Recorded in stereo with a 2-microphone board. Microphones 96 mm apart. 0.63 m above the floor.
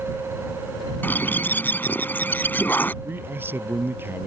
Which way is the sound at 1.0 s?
20° left (ahead or behind).